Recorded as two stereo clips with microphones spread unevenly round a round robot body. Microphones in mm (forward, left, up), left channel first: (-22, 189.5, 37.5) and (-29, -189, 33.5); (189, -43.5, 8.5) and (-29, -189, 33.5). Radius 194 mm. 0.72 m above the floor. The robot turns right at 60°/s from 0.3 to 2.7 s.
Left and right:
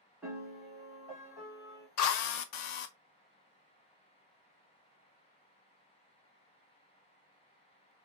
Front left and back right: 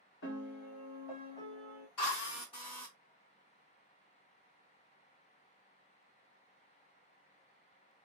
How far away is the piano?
About 1.4 m.